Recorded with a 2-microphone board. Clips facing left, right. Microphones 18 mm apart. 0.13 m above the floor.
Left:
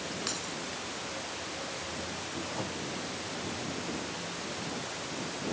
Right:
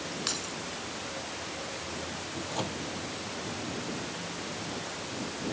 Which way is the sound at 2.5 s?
65° right (ahead or behind).